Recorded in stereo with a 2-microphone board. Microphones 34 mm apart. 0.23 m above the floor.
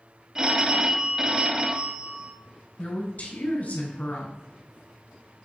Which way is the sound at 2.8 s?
55° left (ahead or behind).